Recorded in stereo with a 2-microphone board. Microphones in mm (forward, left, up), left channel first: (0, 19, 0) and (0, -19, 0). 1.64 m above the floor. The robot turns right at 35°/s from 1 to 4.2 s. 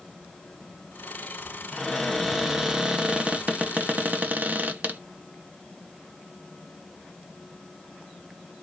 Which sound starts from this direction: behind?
A cupboard door, at 1.7 s.